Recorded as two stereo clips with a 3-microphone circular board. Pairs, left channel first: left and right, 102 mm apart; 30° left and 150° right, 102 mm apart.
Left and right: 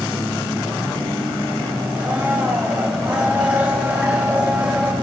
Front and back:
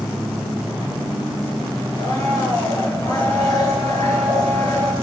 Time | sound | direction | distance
2.0 | a blender | 20° right | 8.5 m